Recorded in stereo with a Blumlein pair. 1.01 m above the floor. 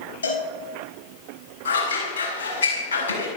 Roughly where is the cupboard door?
I don't hear a cupboard door.